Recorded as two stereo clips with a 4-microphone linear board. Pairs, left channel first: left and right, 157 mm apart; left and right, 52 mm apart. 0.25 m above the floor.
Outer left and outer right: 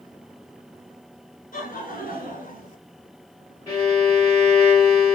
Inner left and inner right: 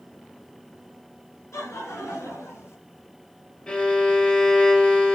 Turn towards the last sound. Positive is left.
turn(degrees=25)  # may be behind; listen again after turning